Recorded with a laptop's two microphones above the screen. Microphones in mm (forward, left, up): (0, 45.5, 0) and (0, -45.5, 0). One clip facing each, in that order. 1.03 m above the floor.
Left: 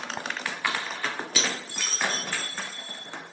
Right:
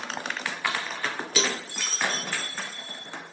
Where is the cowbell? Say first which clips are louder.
Right 4 dB; 45° right (ahead or behind), 0.8 m.